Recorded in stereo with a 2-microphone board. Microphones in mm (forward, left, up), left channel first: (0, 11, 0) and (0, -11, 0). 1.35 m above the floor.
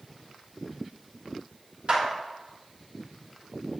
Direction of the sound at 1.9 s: 55° right (ahead or behind).